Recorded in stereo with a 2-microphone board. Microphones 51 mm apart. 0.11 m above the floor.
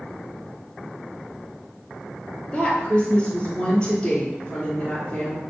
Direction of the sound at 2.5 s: 20° left (ahead or behind).